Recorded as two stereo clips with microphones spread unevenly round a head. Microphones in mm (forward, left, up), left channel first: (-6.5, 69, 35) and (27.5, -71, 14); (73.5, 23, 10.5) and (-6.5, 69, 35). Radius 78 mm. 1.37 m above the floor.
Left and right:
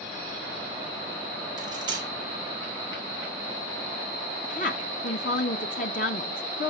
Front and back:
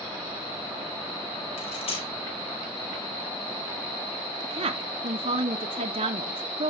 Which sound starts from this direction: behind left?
A woman speaking, at 4.4 s.